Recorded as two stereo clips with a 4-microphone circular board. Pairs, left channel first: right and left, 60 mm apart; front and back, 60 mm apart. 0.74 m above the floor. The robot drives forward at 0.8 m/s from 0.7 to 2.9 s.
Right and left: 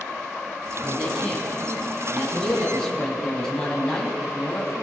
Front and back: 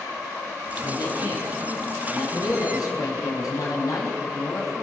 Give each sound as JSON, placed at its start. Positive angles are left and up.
{"t": 0.8, "sound": "a man speaking", "azimuth_deg": -10, "distance_m": 8.0}